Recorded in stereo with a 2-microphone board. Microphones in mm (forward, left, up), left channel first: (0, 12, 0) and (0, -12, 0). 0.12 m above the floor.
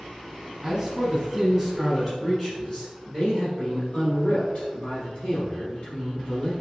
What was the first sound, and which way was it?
A man speaking, 20° right (ahead or behind).